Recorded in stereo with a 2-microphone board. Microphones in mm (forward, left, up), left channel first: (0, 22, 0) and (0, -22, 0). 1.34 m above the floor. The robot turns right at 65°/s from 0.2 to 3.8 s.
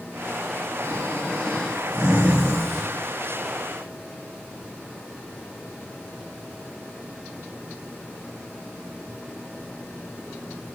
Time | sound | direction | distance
0.8 | snoring | 115° left | 5.5 m